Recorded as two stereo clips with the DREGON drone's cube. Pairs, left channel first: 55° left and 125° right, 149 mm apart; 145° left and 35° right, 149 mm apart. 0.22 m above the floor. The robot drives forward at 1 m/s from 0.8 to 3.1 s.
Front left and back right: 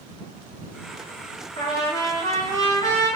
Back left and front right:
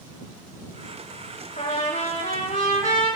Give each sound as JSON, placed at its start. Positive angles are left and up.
{"t": 1.6, "sound": "a trumpet", "azimuth_deg": 115, "distance_m": 7.5}